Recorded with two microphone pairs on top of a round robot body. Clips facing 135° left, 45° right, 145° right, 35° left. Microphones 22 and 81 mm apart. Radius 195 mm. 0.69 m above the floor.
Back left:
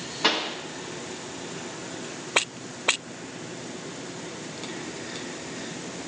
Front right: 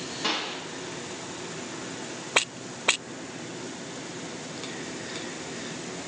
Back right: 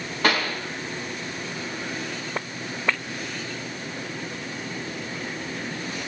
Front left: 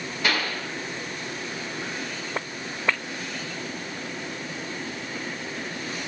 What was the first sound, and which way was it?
A pop, straight behind.